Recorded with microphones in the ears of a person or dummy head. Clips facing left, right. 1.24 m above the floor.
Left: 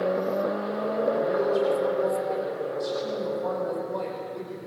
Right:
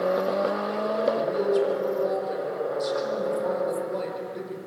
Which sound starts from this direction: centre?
A woman speaking, at 1.1 s.